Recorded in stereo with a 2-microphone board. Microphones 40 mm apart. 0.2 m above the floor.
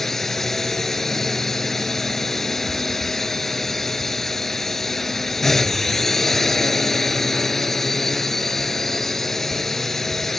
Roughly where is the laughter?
I don't hear laughter.